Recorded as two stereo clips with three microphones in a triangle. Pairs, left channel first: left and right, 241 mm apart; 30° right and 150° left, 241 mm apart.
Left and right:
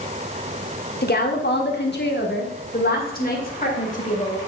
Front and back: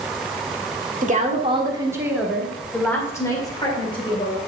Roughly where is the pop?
No pop in this recording.